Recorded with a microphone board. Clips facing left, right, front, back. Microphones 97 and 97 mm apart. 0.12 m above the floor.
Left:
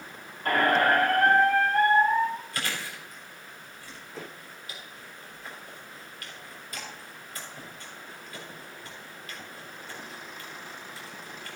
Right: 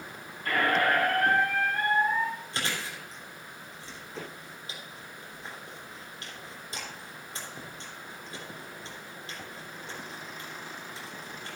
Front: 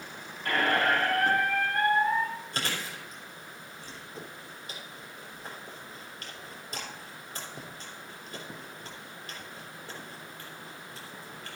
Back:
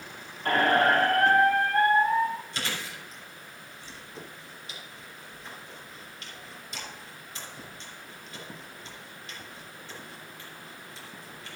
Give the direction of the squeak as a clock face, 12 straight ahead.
8 o'clock.